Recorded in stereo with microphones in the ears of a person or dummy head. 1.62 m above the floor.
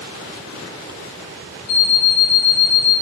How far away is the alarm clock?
About 2.5 m.